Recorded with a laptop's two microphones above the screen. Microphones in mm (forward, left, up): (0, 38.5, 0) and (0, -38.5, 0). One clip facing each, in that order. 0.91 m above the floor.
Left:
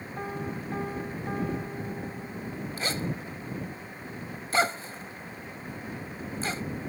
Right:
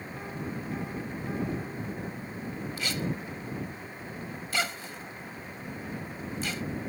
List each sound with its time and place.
0.2 s a piano: 40° left (ahead or behind)
2.8 s a zipper: 35° left (ahead or behind)